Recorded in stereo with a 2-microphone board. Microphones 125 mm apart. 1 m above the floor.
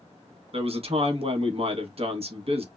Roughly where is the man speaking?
Right.